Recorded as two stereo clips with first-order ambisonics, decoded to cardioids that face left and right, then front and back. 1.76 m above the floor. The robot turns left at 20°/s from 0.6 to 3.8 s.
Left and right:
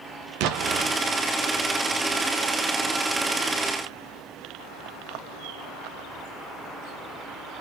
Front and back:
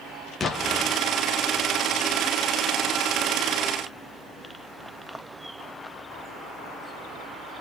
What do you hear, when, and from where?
0.4 s an explosion: 70° right, 0.5 m; by 1.0 s 75° right, 0.5 m